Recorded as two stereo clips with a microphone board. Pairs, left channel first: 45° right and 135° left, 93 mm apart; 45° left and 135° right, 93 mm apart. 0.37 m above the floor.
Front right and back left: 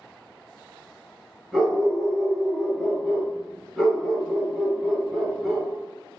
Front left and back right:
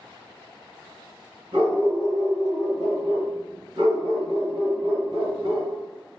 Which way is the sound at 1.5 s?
135° right.